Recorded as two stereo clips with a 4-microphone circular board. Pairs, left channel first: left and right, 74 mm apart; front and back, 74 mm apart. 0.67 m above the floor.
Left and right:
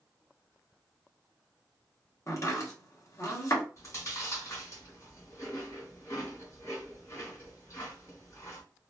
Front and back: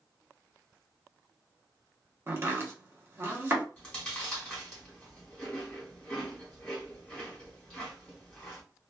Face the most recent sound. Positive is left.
turn(degrees=75)